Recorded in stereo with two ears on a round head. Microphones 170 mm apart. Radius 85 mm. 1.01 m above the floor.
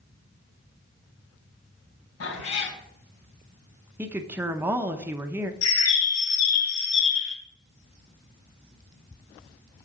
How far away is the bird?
About 2 m.